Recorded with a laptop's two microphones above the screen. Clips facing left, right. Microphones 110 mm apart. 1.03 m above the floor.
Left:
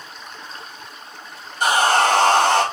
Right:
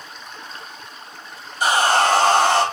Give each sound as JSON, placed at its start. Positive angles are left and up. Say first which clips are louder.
{"t": 1.6, "sound": "sawing", "louder": "even", "side_deg": 50, "distance_m": 2.5}